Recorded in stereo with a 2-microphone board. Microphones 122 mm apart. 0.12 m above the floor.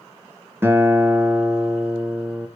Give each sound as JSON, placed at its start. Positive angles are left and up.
{"t": 0.6, "sound": "a guitar", "side_deg": -20, "distance_m": 1.7}